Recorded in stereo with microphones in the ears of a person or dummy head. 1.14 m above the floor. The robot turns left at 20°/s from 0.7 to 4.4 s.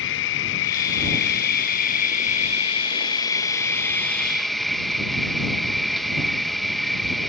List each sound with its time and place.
0.0 s an insect: 80° left; by 7.3 s 5° left